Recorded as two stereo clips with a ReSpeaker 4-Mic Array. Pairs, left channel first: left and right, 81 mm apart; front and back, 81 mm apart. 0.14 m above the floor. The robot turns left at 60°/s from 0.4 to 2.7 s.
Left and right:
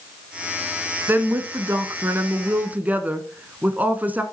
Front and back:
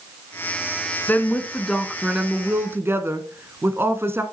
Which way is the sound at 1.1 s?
45° right.